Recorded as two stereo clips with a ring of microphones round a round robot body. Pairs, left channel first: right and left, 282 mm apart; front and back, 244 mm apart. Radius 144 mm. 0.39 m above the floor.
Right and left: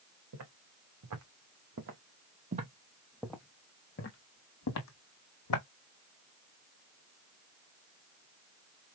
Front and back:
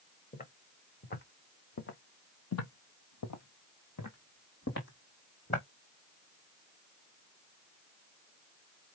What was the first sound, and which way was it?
Footsteps, 55° left.